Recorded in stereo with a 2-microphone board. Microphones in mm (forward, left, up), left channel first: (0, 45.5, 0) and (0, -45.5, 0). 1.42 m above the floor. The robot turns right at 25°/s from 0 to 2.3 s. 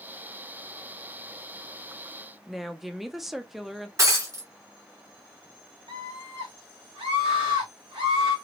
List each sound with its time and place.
2.5 s a woman speaking: centre (ahead or behind), 0.5 m
4.0 s breaking glass: 35° right (ahead or behind), 2 m
5.9 s a scream: 70° right (ahead or behind), 1.1 m